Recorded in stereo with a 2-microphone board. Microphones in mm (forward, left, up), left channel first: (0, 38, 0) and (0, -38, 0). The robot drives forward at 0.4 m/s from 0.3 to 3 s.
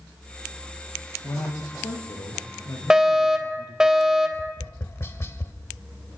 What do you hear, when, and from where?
1.2 s a man speaking: 60° left (ahead or behind), 8 m; by 3.9 s 65° left (ahead or behind), 7.5 m
2.9 s a fire alarm: 10° right (ahead or behind), 2.5 m
4.3 s tapping: 35° left (ahead or behind), 1.6 m